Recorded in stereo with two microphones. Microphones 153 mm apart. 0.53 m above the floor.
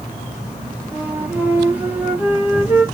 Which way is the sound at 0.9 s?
10° right (ahead or behind).